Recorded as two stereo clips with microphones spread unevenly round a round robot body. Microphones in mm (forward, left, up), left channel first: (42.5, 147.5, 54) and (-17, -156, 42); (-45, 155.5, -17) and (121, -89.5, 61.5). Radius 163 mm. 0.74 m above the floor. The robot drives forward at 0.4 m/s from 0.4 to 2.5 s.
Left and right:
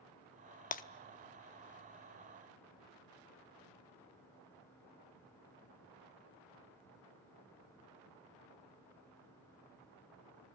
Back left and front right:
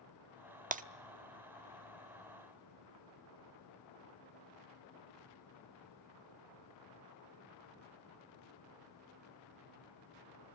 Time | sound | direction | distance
0.7 | breaking glass | 10° left | 0.8 m